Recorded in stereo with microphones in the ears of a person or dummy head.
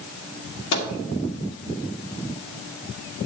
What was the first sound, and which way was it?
A microwave, 70° left (ahead or behind).